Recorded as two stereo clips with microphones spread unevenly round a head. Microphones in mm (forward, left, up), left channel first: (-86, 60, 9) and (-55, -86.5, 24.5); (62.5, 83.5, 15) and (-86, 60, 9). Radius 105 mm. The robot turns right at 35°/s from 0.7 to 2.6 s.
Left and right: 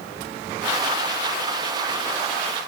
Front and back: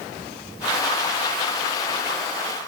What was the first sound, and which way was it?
Only background noise.